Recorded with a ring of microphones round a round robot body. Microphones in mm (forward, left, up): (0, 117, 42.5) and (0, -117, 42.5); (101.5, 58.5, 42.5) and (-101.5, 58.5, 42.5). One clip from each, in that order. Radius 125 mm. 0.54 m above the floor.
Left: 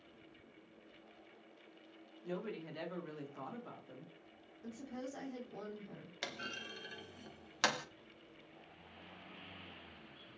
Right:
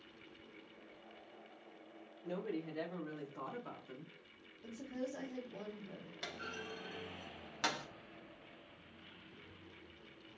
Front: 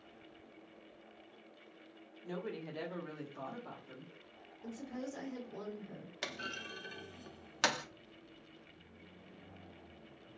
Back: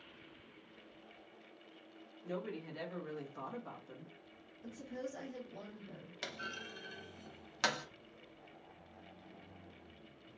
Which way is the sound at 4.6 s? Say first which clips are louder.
Right 3 dB, even; 60° left.